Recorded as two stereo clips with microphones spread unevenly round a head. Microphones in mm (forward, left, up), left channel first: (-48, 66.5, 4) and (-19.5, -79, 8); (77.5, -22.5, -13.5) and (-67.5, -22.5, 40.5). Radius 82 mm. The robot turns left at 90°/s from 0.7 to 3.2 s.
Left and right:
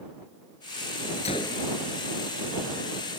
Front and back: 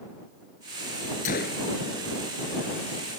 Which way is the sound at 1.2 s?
45° left.